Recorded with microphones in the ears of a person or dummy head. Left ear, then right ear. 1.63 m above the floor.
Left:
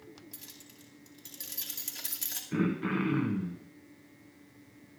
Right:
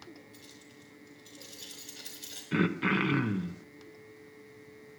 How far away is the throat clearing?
About 1.0 m.